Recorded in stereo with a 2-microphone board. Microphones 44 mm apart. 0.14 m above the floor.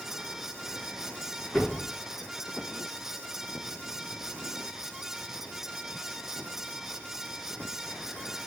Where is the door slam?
5° left (ahead or behind), 7 m.